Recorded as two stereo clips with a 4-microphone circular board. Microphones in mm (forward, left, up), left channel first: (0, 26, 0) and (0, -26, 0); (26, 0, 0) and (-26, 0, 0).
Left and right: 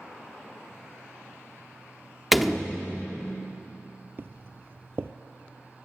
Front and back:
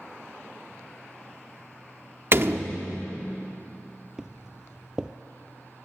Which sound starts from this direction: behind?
A door slam, at 2.3 s.